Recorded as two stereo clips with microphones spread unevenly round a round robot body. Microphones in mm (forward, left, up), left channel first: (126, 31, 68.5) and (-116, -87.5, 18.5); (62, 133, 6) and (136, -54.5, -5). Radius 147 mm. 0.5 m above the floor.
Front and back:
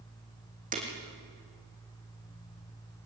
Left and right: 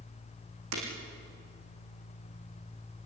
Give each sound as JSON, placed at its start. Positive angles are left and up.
{"t": 0.7, "sound": "breaking glass", "azimuth_deg": -90, "distance_m": 5.5}